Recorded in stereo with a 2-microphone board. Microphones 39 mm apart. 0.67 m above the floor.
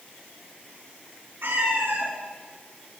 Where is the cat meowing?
90° right, 5 m.